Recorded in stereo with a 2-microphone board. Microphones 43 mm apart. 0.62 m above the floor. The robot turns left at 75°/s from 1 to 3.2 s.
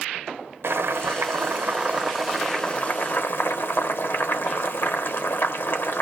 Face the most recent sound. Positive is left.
turn(degrees=115)